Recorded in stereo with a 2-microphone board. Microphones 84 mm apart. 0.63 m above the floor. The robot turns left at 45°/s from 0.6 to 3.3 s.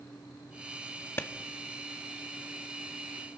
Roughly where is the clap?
Left.